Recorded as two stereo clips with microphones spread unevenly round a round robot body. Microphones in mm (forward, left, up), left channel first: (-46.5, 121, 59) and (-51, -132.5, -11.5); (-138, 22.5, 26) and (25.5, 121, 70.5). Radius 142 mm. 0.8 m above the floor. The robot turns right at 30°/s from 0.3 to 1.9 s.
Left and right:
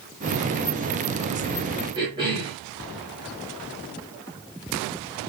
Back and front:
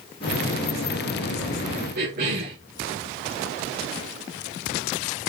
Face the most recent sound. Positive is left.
turn(degrees=-20)